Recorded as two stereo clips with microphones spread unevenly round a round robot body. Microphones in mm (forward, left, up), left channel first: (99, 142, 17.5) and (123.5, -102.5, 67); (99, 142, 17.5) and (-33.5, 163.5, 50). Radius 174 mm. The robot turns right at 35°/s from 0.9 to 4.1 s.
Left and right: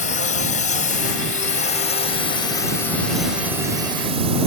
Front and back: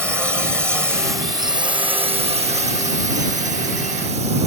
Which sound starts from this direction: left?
A drone, at 0.0 s.